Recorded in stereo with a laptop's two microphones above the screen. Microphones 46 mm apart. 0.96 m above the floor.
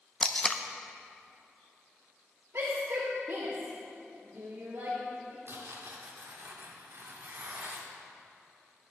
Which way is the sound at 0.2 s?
20° left (ahead or behind).